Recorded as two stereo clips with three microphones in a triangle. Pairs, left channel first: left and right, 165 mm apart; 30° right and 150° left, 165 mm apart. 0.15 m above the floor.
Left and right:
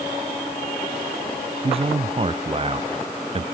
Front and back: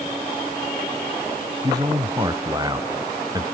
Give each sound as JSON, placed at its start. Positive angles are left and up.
{"t": 1.6, "sound": "a man speaking", "azimuth_deg": -145}